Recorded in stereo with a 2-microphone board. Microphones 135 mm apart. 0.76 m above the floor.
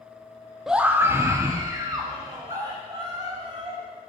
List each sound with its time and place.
0.7 s a scream: 5° right (ahead or behind), 0.6 m; by 3.8 s 30° right (ahead or behind), 4 m